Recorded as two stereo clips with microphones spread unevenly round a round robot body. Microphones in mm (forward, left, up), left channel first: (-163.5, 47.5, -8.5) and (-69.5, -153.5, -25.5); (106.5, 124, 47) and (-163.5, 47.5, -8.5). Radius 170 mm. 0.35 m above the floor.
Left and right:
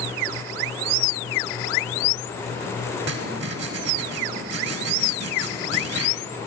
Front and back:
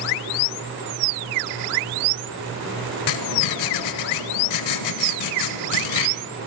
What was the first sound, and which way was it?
Writing, 15° right.